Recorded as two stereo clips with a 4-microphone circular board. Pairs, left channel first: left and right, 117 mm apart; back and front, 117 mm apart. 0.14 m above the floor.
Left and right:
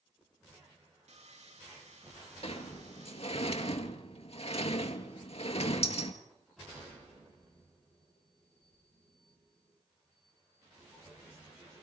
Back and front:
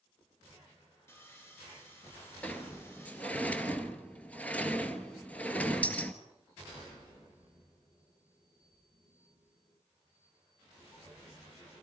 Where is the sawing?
110° right, 6 m.